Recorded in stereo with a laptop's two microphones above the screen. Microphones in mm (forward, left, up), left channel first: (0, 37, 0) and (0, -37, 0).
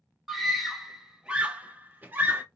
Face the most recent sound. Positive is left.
turn(degrees=-25)  # may be behind; listen again after turning